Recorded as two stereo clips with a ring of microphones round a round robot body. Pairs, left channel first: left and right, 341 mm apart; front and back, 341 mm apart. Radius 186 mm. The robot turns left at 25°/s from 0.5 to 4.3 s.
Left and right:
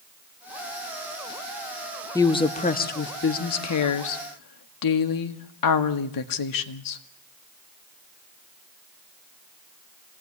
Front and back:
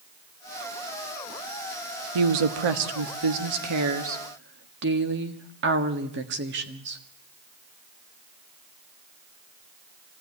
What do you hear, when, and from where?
2.1 s a woman speaking: 170° left, 1.8 m; by 7.0 s 120° left, 1.8 m